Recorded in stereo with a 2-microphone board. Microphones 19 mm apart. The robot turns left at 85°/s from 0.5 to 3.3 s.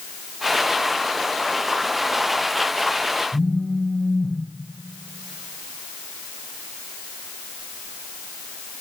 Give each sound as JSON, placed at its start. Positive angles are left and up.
{"t": 3.3, "sound": "a phone buzzing", "side_deg": 40, "distance_m": 1.6}